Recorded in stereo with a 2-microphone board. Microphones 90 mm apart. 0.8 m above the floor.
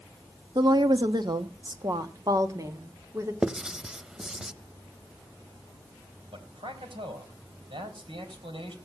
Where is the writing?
10° right (ahead or behind), 0.7 m.